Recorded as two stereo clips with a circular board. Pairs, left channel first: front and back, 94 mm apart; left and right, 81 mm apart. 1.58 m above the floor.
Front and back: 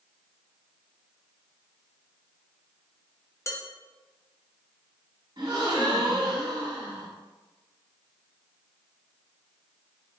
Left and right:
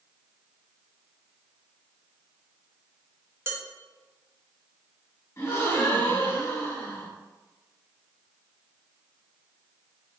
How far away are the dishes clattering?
About 0.8 m.